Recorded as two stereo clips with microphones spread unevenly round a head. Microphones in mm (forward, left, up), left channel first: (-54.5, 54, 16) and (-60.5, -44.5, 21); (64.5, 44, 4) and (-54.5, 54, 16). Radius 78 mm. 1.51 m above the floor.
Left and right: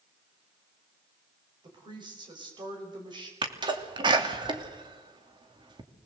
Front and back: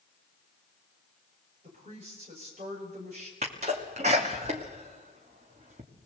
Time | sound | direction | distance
1.6 | a woman speaking | 135° right | 6 m
3.4 | a sneeze | 130° right | 3 m